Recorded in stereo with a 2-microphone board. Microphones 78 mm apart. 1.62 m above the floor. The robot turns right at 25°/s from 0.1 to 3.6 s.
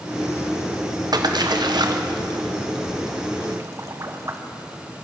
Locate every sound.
1.1 s a splash: 60° right (ahead or behind), 0.8 m; by 4.4 s 40° right (ahead or behind), 0.8 m